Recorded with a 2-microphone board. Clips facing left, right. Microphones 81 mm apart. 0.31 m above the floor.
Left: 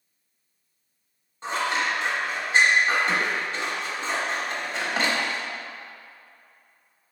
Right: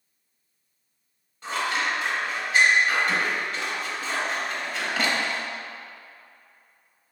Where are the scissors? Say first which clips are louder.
Left 1 dB; 30° left (ahead or behind), 0.9 m.